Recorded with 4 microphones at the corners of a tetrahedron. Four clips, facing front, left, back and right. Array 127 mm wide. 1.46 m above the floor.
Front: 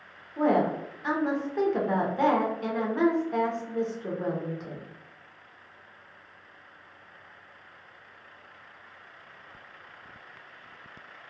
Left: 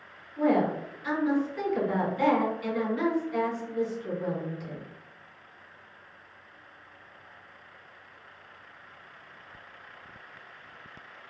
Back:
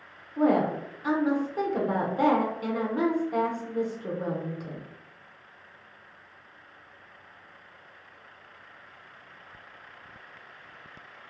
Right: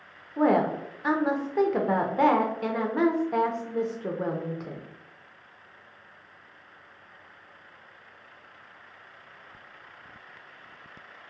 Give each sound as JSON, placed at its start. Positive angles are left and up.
{"t": 0.4, "sound": "a woman speaking", "azimuth_deg": -100, "distance_m": 0.6}